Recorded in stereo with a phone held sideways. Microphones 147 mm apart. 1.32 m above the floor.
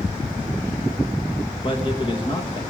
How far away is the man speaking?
About 1.7 m.